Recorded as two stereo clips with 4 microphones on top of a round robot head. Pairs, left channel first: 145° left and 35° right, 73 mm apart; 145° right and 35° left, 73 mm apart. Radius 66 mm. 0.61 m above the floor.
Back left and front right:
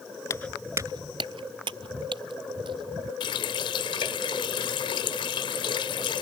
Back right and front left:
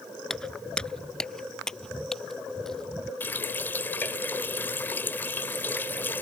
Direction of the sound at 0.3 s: 135° left.